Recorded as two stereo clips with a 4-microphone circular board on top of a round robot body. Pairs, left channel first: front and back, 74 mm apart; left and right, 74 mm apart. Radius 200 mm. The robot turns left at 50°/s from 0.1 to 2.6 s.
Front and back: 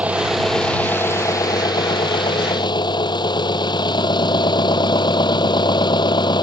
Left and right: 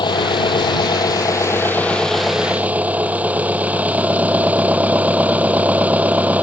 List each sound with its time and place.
0.0 s an engine running: 105° left; by 6.4 s 20° right